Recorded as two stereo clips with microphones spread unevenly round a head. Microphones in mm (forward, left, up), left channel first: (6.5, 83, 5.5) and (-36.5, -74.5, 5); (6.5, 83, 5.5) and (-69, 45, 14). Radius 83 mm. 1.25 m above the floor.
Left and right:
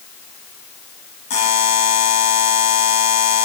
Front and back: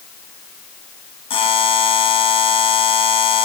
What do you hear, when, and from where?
1.3 s a buzzer: 20° left, 2.5 m